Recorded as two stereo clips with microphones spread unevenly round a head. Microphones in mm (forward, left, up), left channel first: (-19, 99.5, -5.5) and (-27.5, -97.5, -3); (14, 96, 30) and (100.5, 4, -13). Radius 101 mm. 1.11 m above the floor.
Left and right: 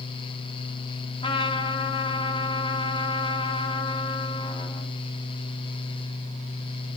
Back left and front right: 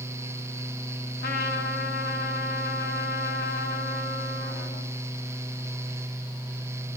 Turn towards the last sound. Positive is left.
turn(degrees=150)